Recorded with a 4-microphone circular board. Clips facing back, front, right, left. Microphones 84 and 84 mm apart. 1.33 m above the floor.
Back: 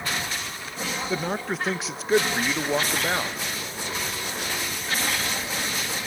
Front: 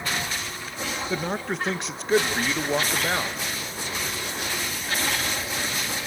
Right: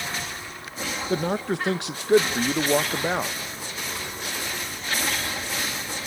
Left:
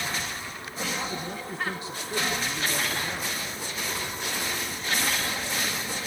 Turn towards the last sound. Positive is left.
turn(degrees=-90)